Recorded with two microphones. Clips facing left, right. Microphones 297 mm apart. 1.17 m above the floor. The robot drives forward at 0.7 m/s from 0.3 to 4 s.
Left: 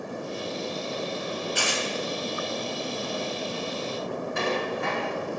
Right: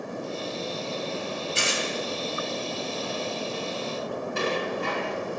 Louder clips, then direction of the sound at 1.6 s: Even; 25° right (ahead or behind).